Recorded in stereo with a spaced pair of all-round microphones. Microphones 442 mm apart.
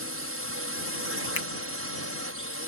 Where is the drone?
30° right (ahead or behind).